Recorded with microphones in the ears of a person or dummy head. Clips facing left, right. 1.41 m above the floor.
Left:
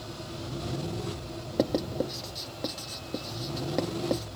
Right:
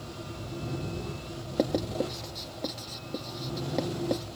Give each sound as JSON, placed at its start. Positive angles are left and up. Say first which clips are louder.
{"t": 1.6, "sound": "writing", "louder": "even", "side_deg": 5}